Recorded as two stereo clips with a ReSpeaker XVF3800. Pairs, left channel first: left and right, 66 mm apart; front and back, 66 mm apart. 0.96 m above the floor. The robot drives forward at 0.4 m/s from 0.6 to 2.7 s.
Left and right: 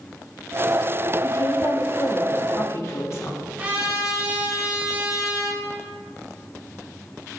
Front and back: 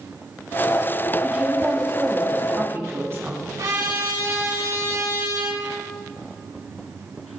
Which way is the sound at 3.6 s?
155° right.